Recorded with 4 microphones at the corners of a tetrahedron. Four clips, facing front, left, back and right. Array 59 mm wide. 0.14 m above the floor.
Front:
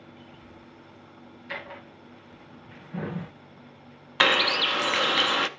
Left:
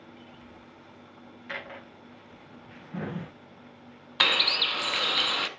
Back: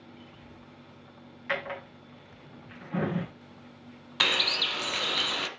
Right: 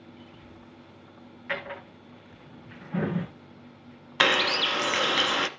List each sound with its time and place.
1.5 s a drawer: 155° right, 3.5 m
4.2 s a bird: 30° right, 0.6 m